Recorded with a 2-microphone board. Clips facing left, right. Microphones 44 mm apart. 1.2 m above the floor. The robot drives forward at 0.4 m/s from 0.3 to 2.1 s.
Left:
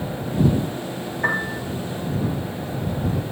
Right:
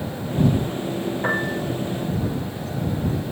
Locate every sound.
1.2 s a piano: 75° left (ahead or behind), 7 m; by 1.6 s 70° left (ahead or behind), 7 m